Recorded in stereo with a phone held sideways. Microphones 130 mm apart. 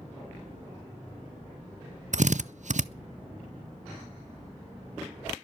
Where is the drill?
65° right (ahead or behind), 0.6 m.